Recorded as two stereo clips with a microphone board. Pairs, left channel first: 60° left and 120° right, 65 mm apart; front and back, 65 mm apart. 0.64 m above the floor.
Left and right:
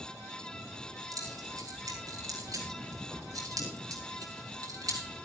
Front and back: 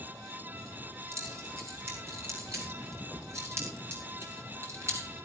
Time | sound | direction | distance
1.1 | keys jangling | 135° right | 7.5 m